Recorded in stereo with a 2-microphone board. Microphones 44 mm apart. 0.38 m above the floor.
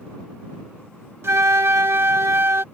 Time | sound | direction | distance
1.2 | a flute | 65° right (ahead or behind) | ?